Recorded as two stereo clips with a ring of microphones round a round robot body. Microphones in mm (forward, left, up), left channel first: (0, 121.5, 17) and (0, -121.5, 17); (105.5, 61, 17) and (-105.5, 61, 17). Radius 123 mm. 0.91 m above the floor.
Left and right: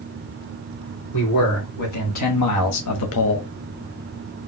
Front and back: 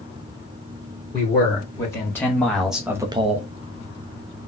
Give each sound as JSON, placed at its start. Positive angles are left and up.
{"t": 1.1, "sound": "a man speaking", "azimuth_deg": 70, "distance_m": 2.5}